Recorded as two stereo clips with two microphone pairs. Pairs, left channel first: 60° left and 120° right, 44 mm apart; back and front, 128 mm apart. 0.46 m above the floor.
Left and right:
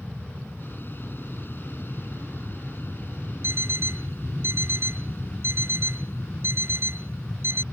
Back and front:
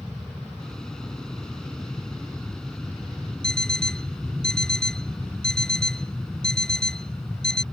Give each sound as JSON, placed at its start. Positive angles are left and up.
{"t": 0.0, "sound": "an aircraft", "azimuth_deg": 95}
{"t": 3.4, "sound": "an alarm clock", "azimuth_deg": -95}